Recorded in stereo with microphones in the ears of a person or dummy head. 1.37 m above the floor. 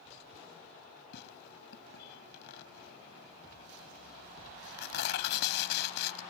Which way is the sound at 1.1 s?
70° left (ahead or behind).